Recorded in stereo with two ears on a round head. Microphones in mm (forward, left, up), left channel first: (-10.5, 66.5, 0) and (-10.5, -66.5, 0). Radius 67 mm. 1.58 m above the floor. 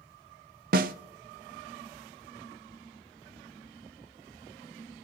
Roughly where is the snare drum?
Right.